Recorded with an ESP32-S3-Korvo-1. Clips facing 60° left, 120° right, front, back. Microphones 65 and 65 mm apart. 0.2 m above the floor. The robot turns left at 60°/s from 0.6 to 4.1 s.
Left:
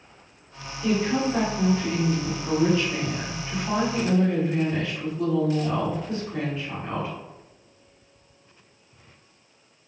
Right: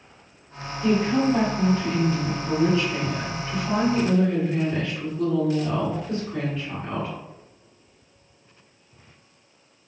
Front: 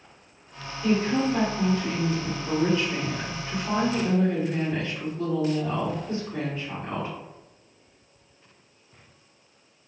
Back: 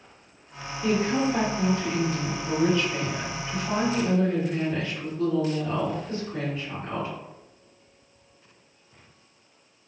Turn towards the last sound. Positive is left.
turn(degrees=-25)